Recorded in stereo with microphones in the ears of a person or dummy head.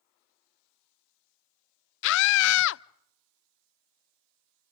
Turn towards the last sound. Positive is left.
turn(degrees=65)  # may be behind; listen again after turning